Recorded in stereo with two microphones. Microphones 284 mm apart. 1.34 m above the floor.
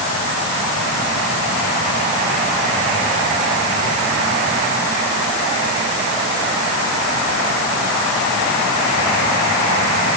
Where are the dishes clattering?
I don't hear dishes clattering.